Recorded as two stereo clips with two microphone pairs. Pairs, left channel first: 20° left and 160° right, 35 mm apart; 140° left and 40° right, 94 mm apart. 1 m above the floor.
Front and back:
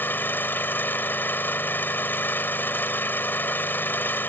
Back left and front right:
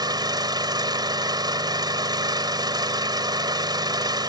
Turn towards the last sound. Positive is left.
turn(degrees=0)